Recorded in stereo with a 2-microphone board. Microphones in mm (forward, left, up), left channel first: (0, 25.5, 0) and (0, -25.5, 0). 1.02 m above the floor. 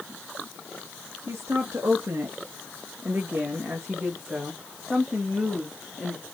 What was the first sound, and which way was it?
A woman speaking, 70° right (ahead or behind).